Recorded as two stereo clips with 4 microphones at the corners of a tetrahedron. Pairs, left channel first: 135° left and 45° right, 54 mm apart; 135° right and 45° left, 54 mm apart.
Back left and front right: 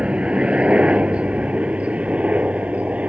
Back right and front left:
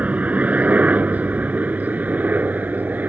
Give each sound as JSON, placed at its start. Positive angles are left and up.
{"t": 0.0, "sound": "a helicopter", "azimuth_deg": 10}